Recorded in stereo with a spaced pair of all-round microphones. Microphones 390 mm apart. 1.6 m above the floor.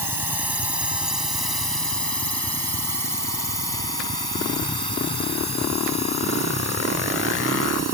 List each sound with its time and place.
0.0 s a drone: 65° left (ahead or behind); by 8.0 s 85° left